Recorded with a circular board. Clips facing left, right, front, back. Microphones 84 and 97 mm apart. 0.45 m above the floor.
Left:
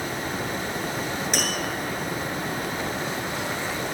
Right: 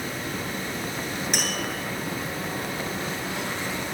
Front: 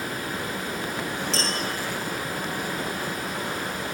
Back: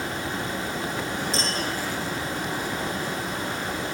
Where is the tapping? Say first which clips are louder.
Left 2 dB, even; 10° left, 5 m.